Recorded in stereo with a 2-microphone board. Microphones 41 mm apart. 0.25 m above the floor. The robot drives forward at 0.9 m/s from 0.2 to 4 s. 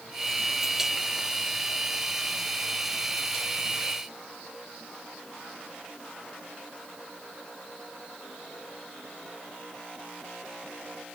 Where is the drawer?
I don't hear a drawer.